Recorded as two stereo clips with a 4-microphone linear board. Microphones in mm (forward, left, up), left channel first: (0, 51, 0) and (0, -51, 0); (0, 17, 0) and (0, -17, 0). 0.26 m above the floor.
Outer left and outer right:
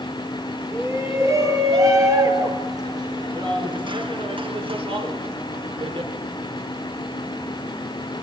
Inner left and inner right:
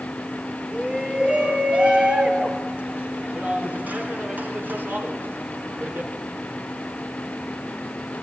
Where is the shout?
30° right (ahead or behind), 5 m; by 6.1 s 65° right (ahead or behind), 3 m.